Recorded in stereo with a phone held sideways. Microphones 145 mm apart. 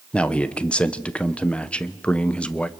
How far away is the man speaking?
About 1.0 m.